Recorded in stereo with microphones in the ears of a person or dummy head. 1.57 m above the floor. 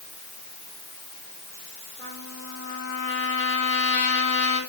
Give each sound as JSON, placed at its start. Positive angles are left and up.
{"t": 2.0, "sound": "a trumpet", "side_deg": 15, "distance_m": 6.0}